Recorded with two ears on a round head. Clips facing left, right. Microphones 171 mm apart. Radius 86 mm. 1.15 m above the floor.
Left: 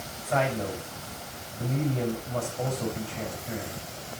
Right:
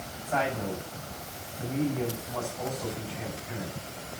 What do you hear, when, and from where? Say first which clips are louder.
0.2 s a man speaking: left 2 dB; 65° left (ahead or behind), 7 m